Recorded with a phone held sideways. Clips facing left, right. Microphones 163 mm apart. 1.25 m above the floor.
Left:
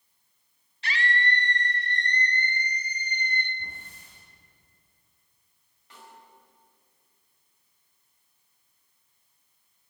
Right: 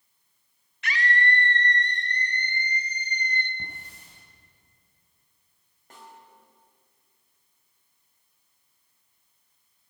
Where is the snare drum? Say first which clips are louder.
Right 2 dB; 45° right (ahead or behind), 4.5 m.